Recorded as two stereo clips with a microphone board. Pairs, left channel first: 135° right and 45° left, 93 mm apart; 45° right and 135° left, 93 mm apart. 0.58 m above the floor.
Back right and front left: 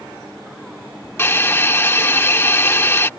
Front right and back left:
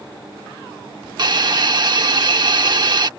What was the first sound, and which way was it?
A hiss, 165° left.